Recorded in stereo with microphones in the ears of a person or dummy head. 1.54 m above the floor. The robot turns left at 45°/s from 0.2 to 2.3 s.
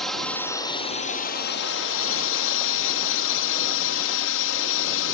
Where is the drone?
175° left; by 5.1 s 80° left.